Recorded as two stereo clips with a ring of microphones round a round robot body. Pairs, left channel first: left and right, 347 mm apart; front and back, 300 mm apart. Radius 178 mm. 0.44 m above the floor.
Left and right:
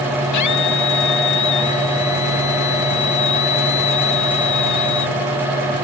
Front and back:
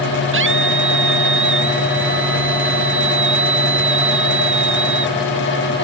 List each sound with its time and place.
0.3 s a scream: 130° left